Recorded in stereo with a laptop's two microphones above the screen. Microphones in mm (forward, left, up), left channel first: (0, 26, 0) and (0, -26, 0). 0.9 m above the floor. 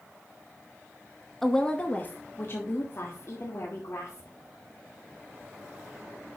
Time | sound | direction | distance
1.4 | a woman speaking | 5° left (ahead or behind) | 0.9 m